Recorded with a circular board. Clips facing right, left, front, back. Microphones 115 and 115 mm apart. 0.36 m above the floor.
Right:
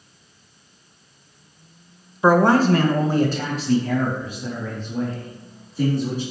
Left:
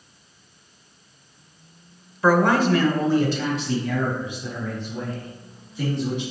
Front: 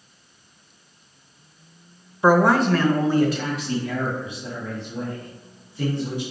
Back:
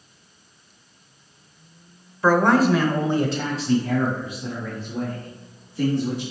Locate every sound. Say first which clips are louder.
2.2 s a man speaking: right 3 dB, even; 45° right, 0.9 m; by 6.2 s 140° right, 4.5 m